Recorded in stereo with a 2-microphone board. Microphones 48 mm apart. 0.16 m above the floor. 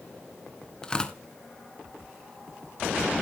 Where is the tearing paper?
20° left (ahead or behind), 1.4 m.